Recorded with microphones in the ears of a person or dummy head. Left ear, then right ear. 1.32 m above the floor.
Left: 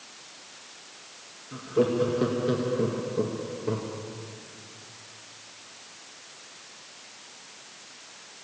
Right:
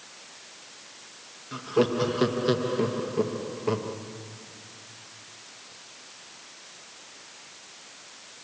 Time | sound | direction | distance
1.5 | laughter | 40° right (ahead or behind) | 1.8 m